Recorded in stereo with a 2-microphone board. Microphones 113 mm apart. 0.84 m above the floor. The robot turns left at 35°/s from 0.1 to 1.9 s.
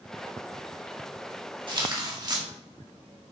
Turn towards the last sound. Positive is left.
turn(degrees=-40)  # may be behind; listen again after turning